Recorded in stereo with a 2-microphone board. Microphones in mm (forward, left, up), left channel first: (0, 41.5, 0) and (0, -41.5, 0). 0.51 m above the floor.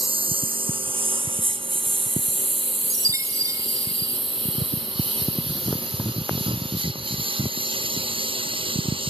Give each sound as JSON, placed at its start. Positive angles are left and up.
{"t": 0.0, "sound": "a lawn mower", "side_deg": -85}
{"t": 2.9, "sound": "a chime", "side_deg": -40}